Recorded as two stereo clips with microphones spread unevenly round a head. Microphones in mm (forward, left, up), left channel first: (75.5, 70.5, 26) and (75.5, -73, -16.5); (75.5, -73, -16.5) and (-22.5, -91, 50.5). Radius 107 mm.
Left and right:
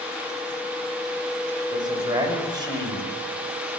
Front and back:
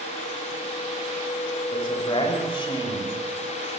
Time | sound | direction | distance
1.7 | a man speaking | 30° right | 6 m